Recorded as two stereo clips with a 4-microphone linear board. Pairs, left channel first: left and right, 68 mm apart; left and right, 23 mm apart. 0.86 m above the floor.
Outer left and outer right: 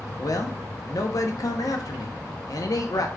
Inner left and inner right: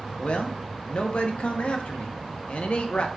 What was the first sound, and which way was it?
A man speaking, 60° left (ahead or behind).